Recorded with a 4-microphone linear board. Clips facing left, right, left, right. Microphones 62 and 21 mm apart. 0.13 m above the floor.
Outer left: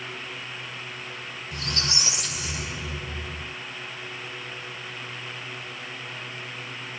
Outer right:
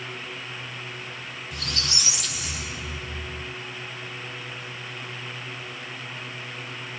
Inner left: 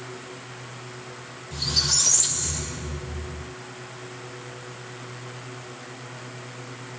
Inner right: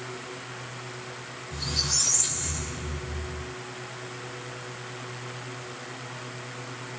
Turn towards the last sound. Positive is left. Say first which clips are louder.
# outer left 2 dB, inner left 5 dB
turn(degrees=35)  # may be behind; listen again after turning